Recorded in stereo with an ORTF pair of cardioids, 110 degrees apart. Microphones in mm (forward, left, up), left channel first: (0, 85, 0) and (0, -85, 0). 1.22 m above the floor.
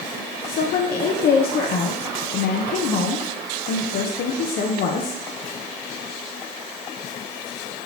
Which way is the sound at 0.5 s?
60° left.